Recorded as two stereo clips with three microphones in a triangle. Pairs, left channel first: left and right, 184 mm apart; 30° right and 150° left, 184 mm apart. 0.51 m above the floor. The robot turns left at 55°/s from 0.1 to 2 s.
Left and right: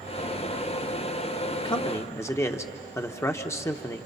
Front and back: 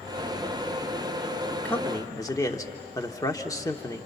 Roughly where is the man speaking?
Ahead left.